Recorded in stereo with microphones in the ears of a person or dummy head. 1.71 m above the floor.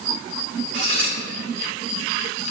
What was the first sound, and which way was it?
Cutlery clinking, 70° right (ahead or behind).